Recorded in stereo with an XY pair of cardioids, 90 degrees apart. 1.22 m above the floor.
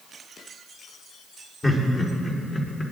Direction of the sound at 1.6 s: 25° left.